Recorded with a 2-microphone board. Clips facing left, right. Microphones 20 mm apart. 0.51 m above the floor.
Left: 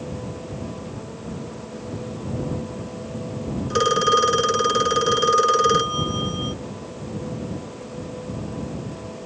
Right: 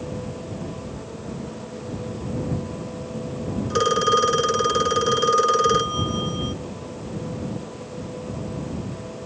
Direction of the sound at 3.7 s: 5° left (ahead or behind).